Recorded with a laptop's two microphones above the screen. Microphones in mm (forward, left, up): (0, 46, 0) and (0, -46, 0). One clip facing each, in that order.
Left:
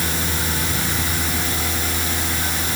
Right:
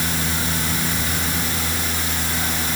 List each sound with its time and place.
Only background noise.